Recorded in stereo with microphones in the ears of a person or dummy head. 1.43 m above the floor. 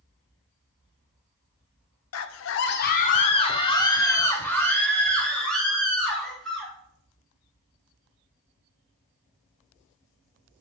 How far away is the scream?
About 0.6 m.